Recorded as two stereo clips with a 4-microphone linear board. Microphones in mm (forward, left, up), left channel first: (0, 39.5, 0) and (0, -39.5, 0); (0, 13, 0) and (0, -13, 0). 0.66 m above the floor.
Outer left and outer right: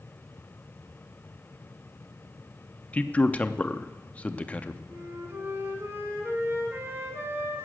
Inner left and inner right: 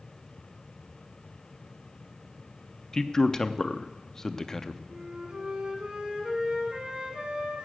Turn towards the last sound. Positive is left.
turn(degrees=-35)  # may be behind; listen again after turning